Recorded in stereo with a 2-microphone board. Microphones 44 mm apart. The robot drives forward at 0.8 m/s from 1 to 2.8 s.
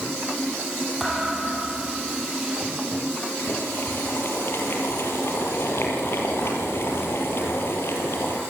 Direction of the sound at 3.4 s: 65° left (ahead or behind).